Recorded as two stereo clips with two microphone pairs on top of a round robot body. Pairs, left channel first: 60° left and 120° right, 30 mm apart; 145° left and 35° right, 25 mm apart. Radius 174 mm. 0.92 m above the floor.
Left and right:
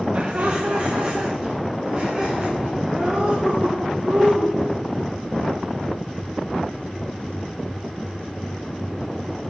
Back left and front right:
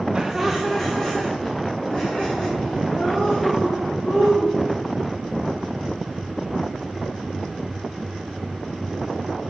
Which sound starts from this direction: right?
Laughter, at 0.1 s.